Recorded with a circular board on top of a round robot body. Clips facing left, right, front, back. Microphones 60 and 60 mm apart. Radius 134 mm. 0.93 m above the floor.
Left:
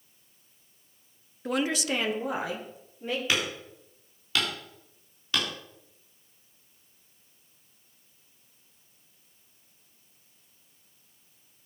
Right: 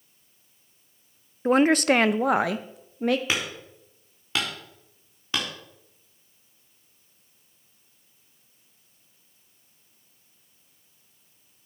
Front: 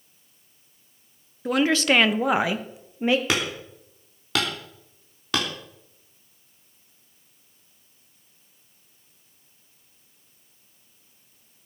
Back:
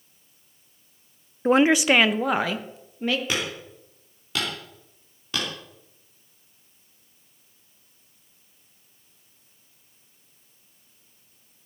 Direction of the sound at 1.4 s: 135° right.